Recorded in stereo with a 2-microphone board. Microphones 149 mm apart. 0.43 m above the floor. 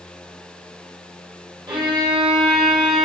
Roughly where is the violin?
Right.